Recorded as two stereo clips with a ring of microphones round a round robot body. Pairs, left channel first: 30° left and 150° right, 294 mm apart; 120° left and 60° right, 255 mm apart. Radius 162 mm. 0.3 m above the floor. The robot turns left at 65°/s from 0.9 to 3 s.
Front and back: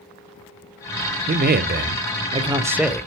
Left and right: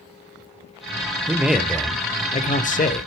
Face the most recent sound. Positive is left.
turn(degrees=115)